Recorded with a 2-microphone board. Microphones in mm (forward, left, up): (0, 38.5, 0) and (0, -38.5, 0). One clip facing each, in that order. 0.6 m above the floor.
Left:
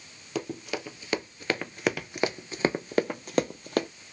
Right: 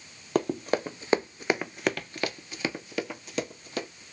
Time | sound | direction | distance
0.3 | running footsteps | 55° right (ahead or behind) | 0.9 m